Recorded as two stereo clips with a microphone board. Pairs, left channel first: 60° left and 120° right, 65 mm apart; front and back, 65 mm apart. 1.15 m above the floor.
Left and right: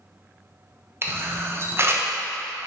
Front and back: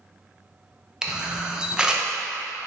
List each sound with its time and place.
1.0 s a camera shutter: 110° right, 0.7 m